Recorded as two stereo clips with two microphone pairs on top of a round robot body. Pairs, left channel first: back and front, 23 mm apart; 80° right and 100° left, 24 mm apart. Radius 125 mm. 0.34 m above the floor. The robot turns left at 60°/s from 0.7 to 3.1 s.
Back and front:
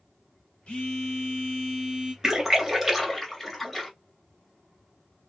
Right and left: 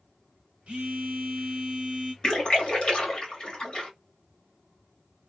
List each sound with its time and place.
0.7 s a phone buzzing: 140° left, 1.1 m; by 2.1 s 50° left, 1.1 m
2.2 s a splash: 50° right, 1.5 m; by 3.9 s 100° right, 1.5 m